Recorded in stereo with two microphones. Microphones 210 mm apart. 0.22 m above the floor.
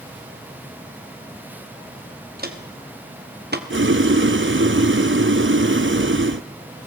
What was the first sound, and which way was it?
Footsteps, 50° right (ahead or behind).